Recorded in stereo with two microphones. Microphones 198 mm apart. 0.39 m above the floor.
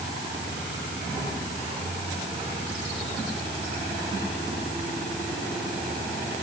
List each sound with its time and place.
Only background noise.